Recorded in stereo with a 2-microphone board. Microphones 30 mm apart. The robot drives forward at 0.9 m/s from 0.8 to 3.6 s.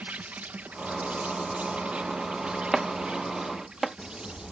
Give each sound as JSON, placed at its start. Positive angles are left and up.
{"t": 0.0, "sound": "an insect", "side_deg": -70}
{"t": 2.7, "sound": "chopping", "side_deg": 0}